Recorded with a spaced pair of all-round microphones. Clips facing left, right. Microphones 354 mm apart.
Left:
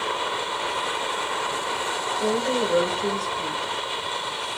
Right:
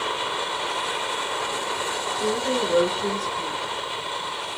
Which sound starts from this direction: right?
A woman speaking, at 2.2 s.